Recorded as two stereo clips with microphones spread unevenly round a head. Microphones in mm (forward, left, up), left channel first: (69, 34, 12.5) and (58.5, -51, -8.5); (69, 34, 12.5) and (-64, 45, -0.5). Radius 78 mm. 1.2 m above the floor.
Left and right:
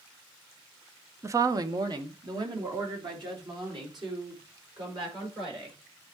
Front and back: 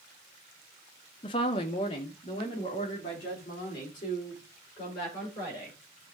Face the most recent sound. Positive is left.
turn(degrees=-70)